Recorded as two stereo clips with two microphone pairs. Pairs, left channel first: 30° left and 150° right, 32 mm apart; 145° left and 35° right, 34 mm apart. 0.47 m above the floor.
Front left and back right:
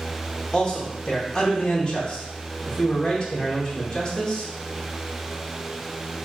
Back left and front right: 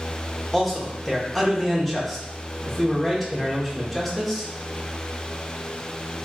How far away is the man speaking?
About 0.9 m.